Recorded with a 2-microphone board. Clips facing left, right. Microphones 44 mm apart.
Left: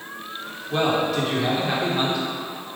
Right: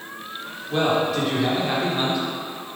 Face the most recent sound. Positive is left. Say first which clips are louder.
# right 1 dB
turn(degrees=-5)  # may be behind; listen again after turning